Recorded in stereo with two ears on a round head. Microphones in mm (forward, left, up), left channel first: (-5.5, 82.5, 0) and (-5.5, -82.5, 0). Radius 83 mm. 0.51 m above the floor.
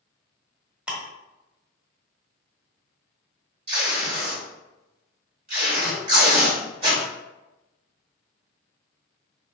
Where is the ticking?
5° right (ahead or behind), 1.0 m.